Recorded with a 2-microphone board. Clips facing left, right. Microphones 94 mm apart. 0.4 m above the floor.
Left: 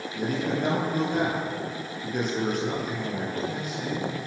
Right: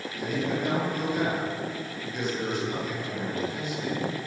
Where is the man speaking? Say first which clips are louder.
Left 2 dB; 50° left (ahead or behind), 9.5 m.